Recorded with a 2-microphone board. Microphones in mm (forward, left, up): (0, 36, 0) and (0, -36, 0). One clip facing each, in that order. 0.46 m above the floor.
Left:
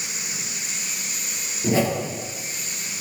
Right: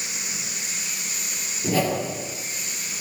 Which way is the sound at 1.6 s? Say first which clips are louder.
Left 1 dB; 20° left (ahead or behind).